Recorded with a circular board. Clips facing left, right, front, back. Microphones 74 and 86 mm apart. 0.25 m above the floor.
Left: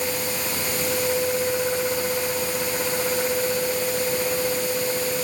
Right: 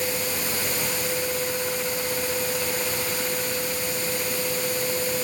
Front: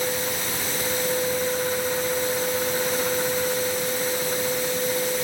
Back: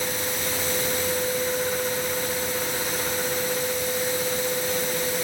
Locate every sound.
Only background noise.